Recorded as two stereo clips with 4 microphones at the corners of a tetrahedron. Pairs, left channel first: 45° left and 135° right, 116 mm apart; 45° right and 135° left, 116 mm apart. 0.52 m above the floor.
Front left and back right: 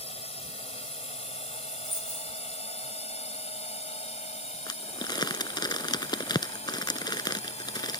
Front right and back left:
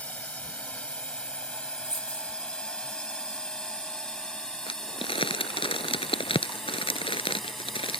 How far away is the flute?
I don't hear a flute.